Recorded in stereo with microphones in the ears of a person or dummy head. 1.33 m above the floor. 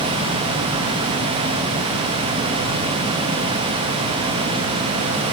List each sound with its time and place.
Only background noise.